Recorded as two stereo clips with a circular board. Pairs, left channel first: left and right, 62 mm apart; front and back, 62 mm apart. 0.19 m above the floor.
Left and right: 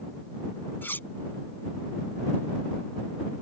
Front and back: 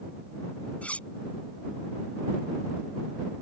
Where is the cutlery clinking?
55° left.